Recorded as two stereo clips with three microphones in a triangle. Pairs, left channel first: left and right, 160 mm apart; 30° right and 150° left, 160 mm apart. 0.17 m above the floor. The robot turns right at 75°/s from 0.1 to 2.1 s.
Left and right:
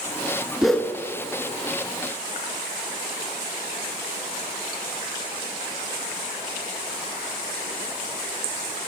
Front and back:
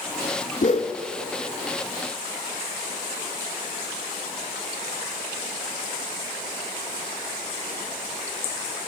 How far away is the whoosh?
About 0.7 m.